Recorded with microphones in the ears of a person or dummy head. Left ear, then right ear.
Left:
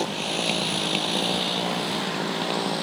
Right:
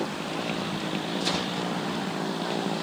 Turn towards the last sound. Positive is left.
turn(degrees=30)  # may be behind; listen again after turning